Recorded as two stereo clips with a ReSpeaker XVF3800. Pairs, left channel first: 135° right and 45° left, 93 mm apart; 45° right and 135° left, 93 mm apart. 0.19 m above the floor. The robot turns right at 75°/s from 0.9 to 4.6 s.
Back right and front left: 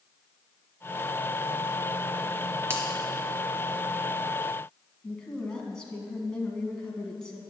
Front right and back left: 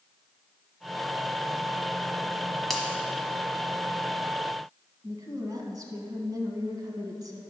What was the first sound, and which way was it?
A finger snap, 40° left.